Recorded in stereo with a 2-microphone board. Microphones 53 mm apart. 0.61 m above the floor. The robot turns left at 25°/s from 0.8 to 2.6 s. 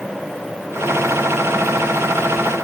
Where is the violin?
I don't hear a violin.